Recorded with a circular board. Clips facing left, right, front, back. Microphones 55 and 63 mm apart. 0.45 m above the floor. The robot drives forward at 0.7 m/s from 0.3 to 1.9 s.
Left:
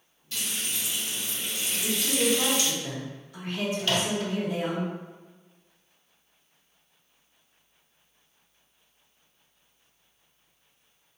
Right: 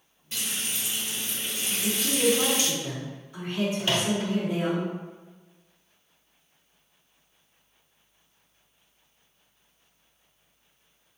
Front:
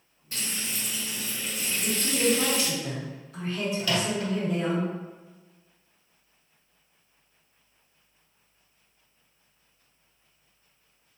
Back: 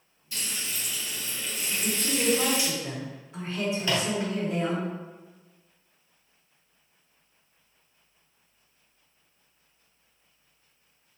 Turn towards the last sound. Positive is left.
turn(degrees=-140)